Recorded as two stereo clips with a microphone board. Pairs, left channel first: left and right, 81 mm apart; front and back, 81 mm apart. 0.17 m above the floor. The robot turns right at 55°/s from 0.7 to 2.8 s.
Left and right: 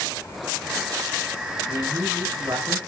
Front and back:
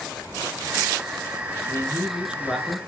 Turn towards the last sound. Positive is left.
turn(degrees=-75)